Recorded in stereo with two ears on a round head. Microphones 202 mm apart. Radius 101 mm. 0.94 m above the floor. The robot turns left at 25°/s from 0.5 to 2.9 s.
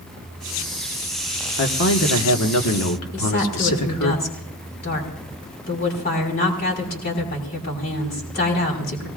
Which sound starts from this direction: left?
A woman speaking, at 3.1 s.